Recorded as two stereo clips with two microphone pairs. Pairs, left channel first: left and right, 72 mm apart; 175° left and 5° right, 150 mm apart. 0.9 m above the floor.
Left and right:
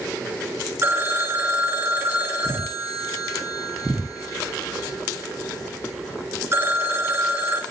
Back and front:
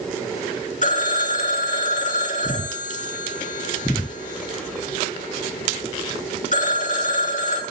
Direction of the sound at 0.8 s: 150° right.